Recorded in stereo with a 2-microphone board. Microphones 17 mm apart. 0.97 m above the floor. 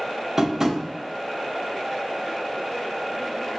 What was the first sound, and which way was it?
Tapping, 25° right (ahead or behind).